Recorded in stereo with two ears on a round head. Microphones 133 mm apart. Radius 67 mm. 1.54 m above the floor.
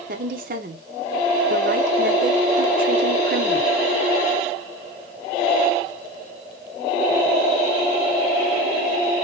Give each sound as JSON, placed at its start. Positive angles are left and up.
{"t": 0.1, "sound": "a woman speaking", "side_deg": -60, "distance_m": 1.0}